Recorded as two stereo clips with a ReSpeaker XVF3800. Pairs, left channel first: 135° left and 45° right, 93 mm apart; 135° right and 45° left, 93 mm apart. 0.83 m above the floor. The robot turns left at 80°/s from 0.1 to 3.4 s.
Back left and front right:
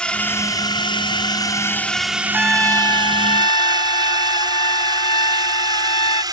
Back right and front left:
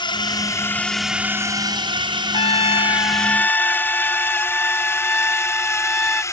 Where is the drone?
145° right; by 6.3 s 80° right.